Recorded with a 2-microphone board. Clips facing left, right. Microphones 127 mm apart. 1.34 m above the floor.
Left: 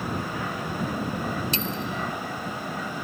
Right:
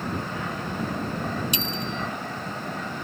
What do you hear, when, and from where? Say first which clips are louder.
1.5 s a bicycle bell: even; 15° right (ahead or behind)